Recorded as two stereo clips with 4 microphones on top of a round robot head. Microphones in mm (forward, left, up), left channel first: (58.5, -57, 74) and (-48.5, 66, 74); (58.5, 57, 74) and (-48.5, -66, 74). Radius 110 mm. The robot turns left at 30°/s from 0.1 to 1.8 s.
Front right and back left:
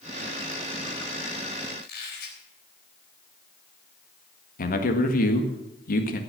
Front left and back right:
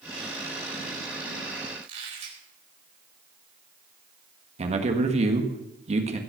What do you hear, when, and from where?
1.8 s a squeak: 80° right, 4 m
4.6 s a man speaking: 80° right, 1.7 m